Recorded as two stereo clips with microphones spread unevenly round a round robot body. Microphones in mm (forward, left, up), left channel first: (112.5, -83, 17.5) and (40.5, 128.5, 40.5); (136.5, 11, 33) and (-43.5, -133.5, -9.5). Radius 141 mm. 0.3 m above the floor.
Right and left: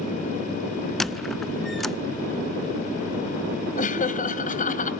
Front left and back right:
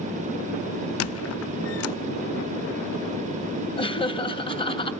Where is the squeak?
20° left, 0.5 m.